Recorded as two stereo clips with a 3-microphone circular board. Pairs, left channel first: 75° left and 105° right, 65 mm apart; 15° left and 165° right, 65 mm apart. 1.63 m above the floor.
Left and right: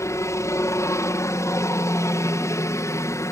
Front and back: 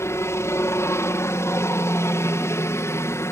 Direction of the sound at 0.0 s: 50° left.